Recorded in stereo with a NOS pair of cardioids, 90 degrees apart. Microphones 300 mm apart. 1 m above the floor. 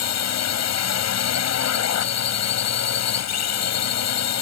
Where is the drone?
60° left.